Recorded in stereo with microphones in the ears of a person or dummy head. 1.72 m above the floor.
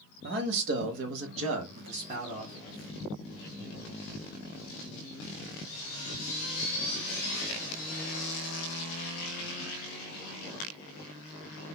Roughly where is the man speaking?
Right.